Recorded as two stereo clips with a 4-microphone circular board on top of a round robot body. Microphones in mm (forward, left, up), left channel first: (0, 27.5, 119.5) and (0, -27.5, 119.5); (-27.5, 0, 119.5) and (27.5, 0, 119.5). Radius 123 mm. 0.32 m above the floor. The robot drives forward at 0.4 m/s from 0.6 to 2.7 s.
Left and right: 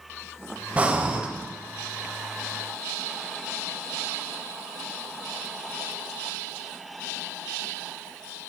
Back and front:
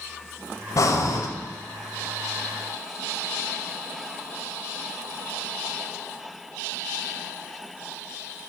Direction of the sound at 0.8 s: 155° right.